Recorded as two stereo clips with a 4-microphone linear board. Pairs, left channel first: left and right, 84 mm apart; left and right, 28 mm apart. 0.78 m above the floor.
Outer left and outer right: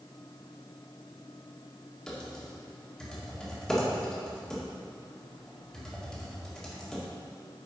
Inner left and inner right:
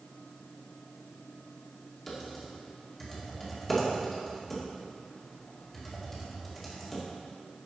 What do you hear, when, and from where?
2.1 s typing on a keyboard: 5° left (ahead or behind), 2 m